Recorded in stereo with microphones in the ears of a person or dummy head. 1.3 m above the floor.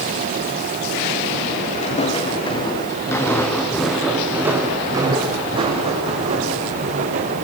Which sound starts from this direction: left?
Footsteps, at 1.8 s.